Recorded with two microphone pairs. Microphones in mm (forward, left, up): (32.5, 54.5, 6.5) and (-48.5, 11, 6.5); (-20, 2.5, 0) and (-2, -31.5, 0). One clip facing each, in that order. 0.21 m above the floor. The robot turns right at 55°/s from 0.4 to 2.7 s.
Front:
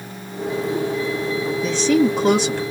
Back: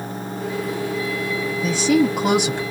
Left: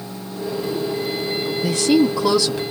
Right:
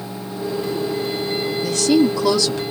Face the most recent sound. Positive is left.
turn(degrees=-170)